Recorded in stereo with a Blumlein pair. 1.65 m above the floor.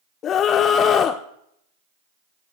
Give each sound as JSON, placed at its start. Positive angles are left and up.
{"t": 0.2, "sound": "a scream", "azimuth_deg": 30, "distance_m": 0.8}